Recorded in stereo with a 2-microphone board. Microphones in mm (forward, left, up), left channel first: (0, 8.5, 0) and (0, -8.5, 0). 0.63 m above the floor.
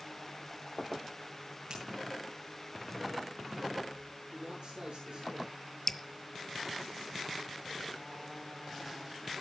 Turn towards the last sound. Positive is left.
turn(degrees=30)  # may be behind; listen again after turning